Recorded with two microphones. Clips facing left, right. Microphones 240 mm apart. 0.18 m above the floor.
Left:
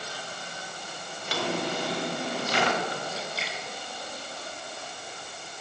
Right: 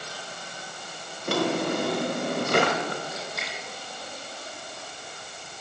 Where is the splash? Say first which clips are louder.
Even; 30° left (ahead or behind), 3.5 m.